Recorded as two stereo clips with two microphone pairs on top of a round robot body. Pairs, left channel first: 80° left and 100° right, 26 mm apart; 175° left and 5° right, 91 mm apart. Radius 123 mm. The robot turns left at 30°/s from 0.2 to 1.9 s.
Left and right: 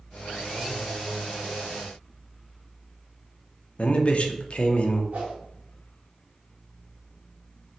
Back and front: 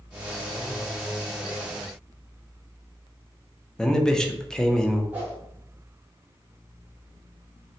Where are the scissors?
No scissors in this recording.